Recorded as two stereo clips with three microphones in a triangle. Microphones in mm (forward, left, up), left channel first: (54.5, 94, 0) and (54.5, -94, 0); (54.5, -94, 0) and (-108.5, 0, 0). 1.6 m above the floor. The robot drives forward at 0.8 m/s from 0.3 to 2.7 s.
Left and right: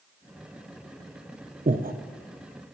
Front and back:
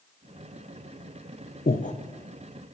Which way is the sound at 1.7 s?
50° right.